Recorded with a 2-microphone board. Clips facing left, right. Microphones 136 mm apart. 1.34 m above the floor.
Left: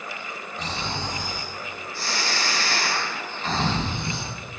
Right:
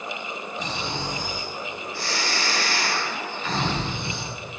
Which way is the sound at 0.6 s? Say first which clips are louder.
Left 1 dB; 45° left (ahead or behind).